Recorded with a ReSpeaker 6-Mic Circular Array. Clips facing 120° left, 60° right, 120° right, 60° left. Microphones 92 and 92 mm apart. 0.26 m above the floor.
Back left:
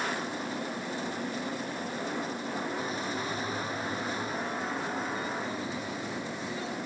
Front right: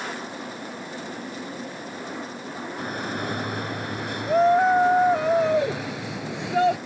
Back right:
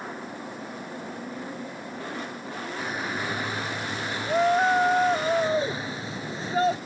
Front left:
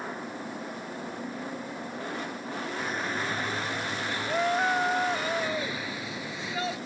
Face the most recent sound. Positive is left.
turn(degrees=-70)